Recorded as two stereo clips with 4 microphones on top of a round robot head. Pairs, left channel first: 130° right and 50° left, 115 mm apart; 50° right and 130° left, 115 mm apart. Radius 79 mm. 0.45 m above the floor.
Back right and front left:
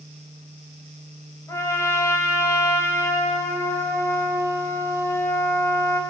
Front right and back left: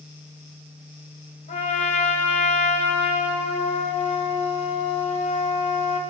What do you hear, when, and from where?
1.5 s a trumpet: 60° right, 3.5 m